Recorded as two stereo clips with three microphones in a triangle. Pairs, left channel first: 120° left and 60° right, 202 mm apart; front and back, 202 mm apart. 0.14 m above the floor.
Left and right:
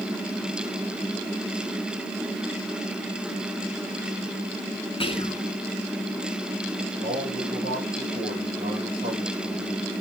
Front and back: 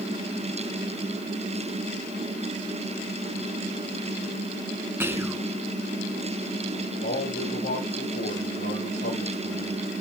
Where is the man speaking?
10° right, 5.5 m.